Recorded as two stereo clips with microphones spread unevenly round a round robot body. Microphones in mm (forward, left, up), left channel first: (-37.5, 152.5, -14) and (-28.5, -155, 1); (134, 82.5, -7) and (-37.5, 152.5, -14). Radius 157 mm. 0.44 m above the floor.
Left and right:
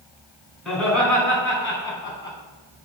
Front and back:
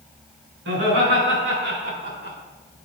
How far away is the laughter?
About 4.5 m.